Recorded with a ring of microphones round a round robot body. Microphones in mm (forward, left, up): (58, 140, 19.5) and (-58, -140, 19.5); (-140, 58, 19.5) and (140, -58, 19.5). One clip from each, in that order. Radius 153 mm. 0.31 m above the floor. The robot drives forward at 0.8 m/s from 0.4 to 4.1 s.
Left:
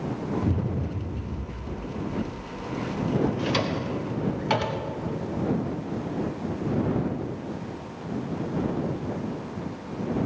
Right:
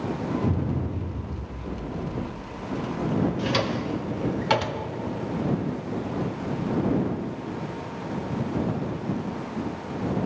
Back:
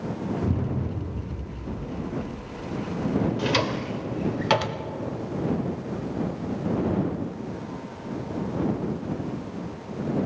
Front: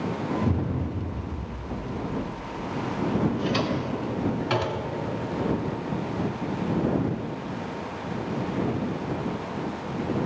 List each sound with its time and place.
0.4 s an explosion: 45° left, 3 m; by 2.4 s 70° left, 2.5 m
3.4 s a drawer: 155° left, 0.6 m; by 4.9 s 170° left, 0.9 m